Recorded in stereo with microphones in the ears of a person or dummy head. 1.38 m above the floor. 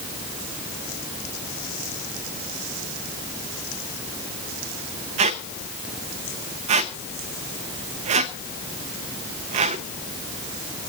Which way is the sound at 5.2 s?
40° right (ahead or behind).